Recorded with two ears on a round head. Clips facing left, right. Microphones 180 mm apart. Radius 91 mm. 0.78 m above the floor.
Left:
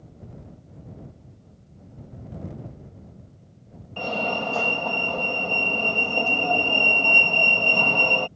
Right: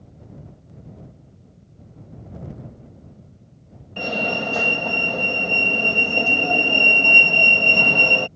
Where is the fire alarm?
20° right (ahead or behind).